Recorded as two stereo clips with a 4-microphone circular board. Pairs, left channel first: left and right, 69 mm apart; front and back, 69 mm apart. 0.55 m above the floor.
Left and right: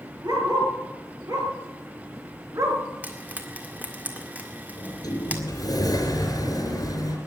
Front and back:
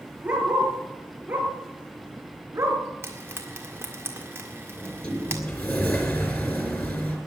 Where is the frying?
145° right, 1.8 m.